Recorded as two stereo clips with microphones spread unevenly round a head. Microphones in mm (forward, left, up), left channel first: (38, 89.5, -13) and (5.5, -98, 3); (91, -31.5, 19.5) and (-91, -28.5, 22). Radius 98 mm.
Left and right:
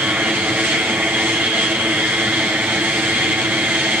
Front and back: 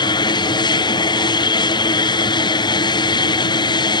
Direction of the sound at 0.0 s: 20° right.